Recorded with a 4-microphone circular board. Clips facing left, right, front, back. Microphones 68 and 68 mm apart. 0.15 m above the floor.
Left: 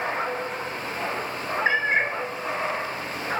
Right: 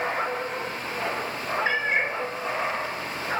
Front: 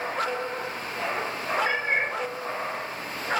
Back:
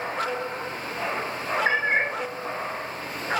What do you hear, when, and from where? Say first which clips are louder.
1.6 s a cat meowing: left 4 dB, back 3 dB; 135° left, 1.2 m